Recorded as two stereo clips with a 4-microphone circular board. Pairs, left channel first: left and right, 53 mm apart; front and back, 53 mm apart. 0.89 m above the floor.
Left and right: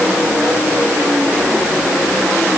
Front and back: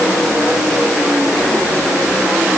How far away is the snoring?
No snoring in this recording.